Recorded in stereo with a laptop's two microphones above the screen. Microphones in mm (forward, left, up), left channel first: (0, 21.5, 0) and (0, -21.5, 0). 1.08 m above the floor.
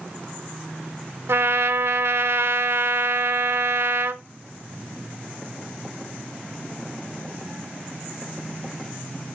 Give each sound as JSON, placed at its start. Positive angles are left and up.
{"t": 1.3, "sound": "a trumpet", "side_deg": -80, "distance_m": 0.9}